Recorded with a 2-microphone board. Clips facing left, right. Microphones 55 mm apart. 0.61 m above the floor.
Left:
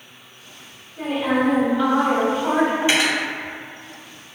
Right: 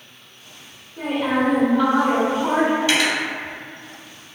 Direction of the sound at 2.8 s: 20° left (ahead or behind).